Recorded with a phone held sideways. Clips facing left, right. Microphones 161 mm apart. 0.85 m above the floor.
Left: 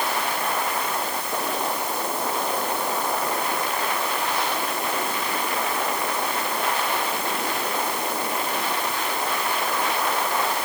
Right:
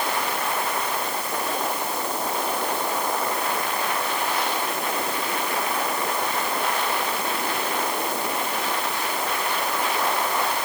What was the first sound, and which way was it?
Only background noise.